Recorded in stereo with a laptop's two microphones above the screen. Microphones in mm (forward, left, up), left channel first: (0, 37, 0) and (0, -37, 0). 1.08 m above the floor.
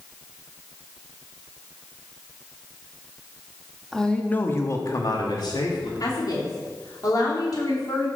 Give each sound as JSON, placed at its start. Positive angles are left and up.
{"t": 3.9, "sound": "a man speaking", "side_deg": 5, "distance_m": 1.5}
{"t": 6.0, "sound": "a woman speaking", "side_deg": 55, "distance_m": 3.0}